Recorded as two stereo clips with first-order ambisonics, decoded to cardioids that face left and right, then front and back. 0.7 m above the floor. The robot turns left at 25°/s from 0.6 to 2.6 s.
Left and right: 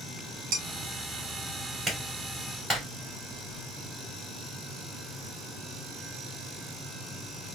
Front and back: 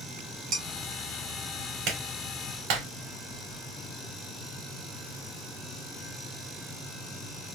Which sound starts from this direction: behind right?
Dishes clattering, at 0.5 s.